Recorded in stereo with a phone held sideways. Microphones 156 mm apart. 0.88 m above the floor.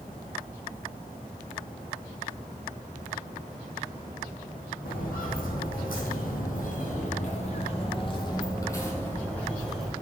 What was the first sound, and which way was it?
Footsteps, 65° left (ahead or behind).